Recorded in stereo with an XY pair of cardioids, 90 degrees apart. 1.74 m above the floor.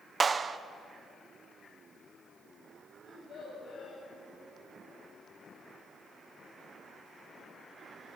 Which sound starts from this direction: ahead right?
A clap, at 0.2 s.